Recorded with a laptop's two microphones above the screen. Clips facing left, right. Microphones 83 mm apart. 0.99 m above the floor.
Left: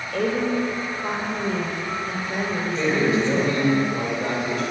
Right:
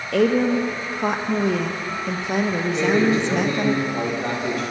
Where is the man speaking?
70° right (ahead or behind), 3.5 m.